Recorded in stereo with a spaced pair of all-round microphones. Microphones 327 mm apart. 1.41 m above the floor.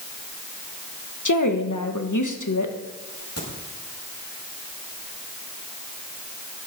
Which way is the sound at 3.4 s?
50° left (ahead or behind).